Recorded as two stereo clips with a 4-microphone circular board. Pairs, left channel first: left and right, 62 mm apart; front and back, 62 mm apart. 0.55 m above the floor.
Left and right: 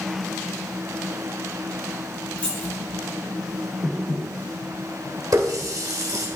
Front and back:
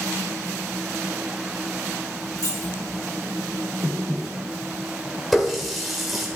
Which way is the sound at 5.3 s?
90° right.